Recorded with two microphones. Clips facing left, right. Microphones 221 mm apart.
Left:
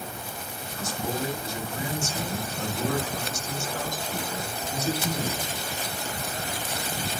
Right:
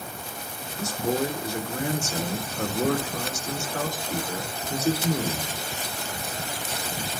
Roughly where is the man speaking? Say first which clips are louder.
Right 5 dB; right.